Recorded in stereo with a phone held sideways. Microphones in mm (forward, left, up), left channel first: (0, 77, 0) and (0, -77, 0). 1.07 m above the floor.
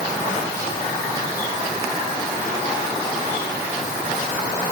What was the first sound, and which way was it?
Only background noise.